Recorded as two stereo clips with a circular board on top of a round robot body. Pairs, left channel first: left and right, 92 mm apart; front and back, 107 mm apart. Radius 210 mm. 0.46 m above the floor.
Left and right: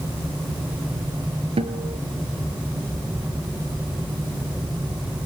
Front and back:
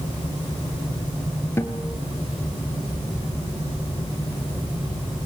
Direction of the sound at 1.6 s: 70° right.